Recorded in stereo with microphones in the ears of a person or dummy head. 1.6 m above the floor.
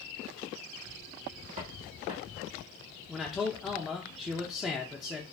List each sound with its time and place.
1.6 s footsteps: 40° right (ahead or behind), 2.5 m
3.1 s a man speaking: 5° right (ahead or behind), 0.7 m